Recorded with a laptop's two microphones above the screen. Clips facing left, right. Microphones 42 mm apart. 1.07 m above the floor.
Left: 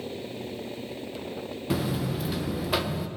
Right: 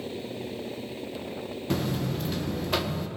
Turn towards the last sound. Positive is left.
turn(degrees=5)  # may be behind; listen again after turning